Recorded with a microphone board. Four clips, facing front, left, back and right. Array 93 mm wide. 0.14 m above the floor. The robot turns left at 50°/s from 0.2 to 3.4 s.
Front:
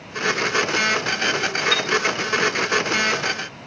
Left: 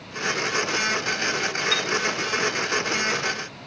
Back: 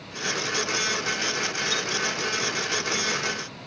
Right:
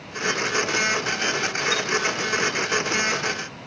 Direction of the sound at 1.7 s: 20° left.